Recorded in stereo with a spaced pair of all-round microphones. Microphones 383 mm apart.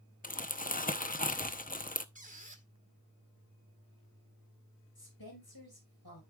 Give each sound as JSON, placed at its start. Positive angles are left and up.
{"t": 0.2, "sound": "crumpling", "side_deg": 20, "distance_m": 0.7}
{"t": 2.1, "sound": "a squeak", "side_deg": -20, "distance_m": 1.2}
{"t": 5.0, "sound": "a woman speaking", "side_deg": 70, "distance_m": 5.5}